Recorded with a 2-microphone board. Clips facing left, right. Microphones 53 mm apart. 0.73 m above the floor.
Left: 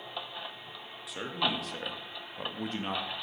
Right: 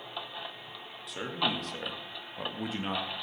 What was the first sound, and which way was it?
A man speaking, centre (ahead or behind).